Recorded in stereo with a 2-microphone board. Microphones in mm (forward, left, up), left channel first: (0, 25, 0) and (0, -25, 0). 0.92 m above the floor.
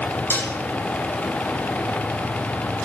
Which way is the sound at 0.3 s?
45° left (ahead or behind).